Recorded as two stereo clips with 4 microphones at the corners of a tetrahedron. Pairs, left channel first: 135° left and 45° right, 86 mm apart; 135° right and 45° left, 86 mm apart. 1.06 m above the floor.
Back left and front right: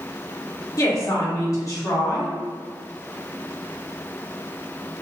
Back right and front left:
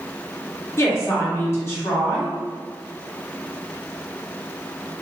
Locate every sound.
0.8 s a woman speaking: 175° left, 1.1 m